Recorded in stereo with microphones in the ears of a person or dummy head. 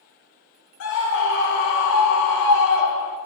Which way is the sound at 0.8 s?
65° left (ahead or behind).